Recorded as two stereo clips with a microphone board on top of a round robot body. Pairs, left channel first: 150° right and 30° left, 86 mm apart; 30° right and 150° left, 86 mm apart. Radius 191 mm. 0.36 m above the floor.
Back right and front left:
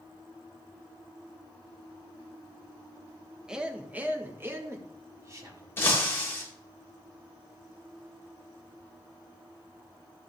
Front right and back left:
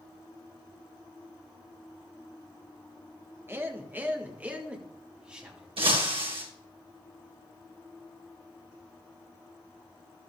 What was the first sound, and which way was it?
A man speaking, 105° left.